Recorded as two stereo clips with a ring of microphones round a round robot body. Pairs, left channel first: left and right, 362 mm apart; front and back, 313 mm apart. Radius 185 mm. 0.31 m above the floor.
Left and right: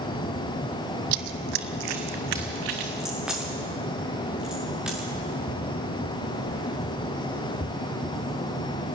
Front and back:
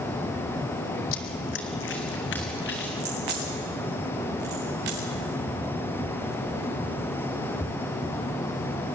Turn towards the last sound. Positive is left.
turn(degrees=180)